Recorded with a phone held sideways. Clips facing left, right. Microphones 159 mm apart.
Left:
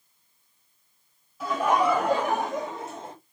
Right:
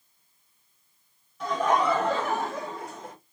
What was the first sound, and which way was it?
Laughter, 5° left (ahead or behind).